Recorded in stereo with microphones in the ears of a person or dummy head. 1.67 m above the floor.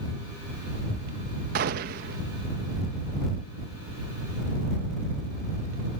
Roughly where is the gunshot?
Right.